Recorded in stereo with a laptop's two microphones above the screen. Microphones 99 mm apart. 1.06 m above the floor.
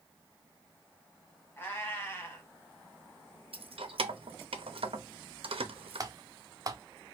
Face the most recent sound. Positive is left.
turn(degrees=-40)  # may be behind; listen again after turning